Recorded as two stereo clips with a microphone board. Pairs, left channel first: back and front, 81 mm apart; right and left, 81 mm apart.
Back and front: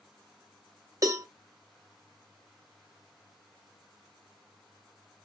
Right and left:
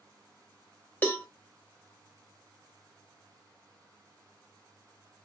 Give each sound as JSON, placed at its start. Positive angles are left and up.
{"t": 1.0, "sound": "a cowbell", "azimuth_deg": -25, "distance_m": 0.9}